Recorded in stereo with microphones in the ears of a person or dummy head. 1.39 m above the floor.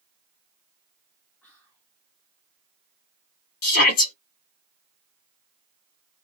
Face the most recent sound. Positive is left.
turn(degrees=60)  # may be behind; listen again after turning